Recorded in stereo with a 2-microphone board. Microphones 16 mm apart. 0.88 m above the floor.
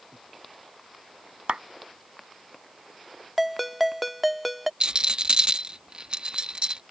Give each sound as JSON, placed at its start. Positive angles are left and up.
{"t": 1.5, "sound": "a clap", "side_deg": -80}
{"t": 3.4, "sound": "a ringtone", "side_deg": -10}
{"t": 4.8, "sound": "a rattle", "side_deg": -70}